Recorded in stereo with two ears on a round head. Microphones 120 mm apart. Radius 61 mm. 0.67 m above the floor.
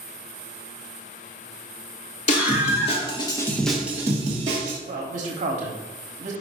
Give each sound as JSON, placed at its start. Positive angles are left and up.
{"t": 2.3, "sound": "a scream", "side_deg": 60, "distance_m": 2.5}
{"t": 4.8, "sound": "a man speaking", "side_deg": -60, "distance_m": 1.4}